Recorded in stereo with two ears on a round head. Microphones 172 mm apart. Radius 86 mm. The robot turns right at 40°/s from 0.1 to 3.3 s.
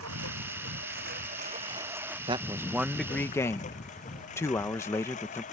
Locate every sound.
0.0 s a lawn mower: 90° right; by 5.5 s 40° left (ahead or behind)
2.3 s a man speaking: 25° right; by 5.4 s 15° left